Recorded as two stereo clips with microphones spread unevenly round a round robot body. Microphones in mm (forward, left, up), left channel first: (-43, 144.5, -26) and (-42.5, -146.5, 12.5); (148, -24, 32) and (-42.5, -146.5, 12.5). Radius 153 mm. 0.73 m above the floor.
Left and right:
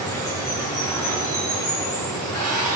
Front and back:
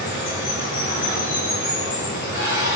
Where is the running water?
5° left, 7 m.